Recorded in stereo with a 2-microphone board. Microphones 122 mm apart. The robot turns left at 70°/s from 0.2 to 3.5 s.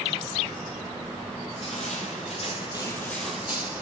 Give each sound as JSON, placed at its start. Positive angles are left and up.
{"t": 1.5, "sound": "crushing", "azimuth_deg": 125, "distance_m": 2.5}